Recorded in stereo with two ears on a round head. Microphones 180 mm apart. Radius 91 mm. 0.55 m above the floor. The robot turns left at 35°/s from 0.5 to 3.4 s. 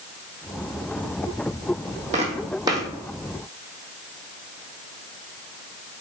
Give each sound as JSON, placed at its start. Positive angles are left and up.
{"t": 2.1, "sound": "footsteps", "side_deg": -35, "distance_m": 1.5}